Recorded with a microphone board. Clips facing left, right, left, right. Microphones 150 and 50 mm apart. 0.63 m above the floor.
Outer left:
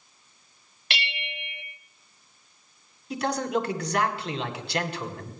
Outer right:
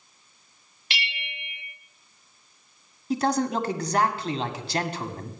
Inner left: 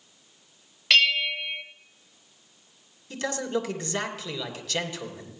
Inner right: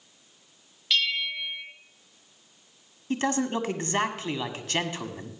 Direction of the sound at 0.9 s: 65° left (ahead or behind).